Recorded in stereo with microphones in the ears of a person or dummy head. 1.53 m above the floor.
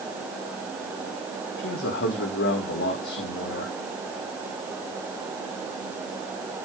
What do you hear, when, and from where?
1.6 s a man speaking: 60° left (ahead or behind), 3.5 m